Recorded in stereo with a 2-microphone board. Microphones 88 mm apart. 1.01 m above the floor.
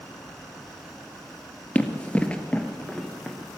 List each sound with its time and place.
1.8 s running footsteps: 20° left (ahead or behind), 1.0 m; by 3.4 s 10° left (ahead or behind), 1.2 m